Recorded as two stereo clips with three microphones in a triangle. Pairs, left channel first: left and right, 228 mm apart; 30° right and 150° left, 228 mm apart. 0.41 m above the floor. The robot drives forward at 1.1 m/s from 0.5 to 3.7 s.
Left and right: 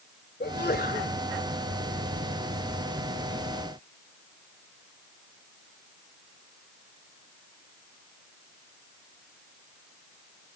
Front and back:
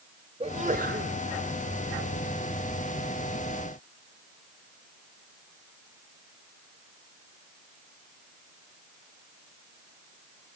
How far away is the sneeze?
About 1.5 m.